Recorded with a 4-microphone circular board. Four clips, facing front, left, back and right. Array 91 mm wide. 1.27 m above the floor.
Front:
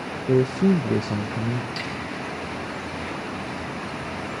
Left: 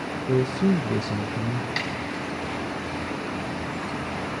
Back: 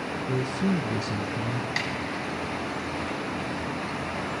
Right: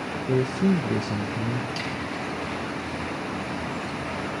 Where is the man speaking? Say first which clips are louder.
Left 1 dB, front 9 dB; straight ahead, 0.6 m.